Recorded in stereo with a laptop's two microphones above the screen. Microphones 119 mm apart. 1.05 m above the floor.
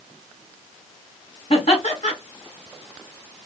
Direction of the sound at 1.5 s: 60° left (ahead or behind).